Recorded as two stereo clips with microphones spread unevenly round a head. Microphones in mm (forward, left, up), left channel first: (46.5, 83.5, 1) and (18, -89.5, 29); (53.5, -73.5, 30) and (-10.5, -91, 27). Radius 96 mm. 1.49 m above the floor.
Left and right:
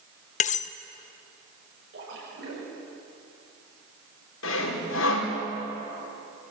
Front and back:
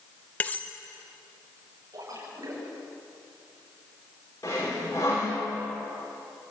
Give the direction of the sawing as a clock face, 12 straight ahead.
9 o'clock.